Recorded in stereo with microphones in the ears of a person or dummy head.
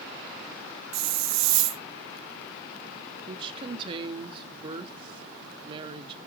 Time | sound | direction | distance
0.9 | a hiss | 80° right | 1.1 m
3.3 | a woman speaking | 30° right (ahead or behind) | 1.1 m